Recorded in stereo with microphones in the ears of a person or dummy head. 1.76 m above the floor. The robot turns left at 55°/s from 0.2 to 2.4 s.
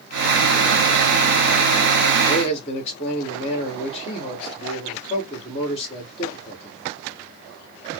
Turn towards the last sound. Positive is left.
turn(degrees=30)  # may be behind; listen again after turning